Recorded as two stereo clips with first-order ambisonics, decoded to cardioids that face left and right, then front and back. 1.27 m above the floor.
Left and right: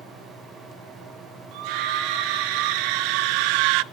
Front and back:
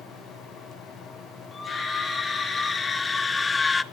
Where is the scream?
75° right, 3 m.